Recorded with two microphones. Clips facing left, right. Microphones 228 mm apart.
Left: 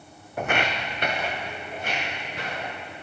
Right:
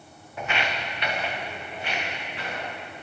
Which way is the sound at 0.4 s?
60° left (ahead or behind).